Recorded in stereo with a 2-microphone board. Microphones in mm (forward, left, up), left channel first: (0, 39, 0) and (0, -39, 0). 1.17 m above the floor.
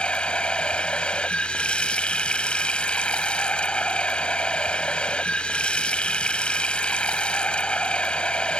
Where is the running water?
15° left (ahead or behind).